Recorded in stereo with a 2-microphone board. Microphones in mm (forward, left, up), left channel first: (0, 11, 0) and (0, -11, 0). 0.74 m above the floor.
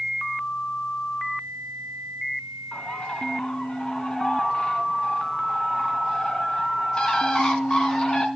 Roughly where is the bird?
Left.